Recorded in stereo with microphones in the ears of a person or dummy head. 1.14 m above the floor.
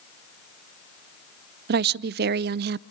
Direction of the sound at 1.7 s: 50° right (ahead or behind).